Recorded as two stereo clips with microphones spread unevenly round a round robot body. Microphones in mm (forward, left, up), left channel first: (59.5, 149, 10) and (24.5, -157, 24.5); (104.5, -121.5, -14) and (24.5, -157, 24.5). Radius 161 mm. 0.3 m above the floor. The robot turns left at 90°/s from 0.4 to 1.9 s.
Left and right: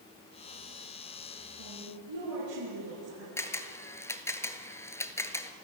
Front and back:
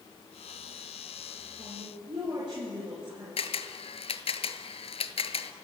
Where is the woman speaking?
90° right, 5.5 m; by 3.3 s 115° right, 5.5 m.